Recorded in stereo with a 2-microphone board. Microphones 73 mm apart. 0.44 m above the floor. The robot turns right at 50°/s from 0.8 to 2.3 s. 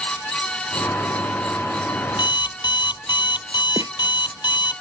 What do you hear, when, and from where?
2.1 s an alarm clock: 70° left (ahead or behind); by 4.8 s 80° left
3.8 s a snare drum: 55° right (ahead or behind)